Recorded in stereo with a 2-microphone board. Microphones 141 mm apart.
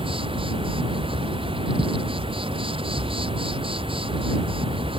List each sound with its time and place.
0.0 s an insect: 40° right (ahead or behind)